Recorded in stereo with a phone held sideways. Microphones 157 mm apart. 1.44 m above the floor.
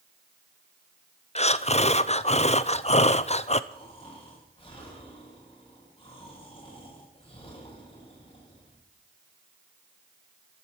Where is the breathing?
45° left (ahead or behind), 0.6 m.